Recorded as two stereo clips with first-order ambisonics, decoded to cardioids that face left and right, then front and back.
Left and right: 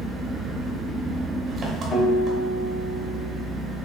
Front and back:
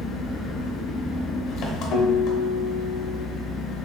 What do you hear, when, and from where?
0.0 s an engine running: 25° right, 0.7 m
1.9 s a guitar: 25° left, 1.0 m